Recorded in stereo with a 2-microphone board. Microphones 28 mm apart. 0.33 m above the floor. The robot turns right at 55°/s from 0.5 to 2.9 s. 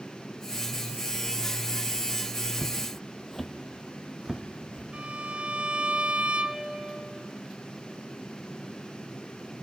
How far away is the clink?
No clink in this recording.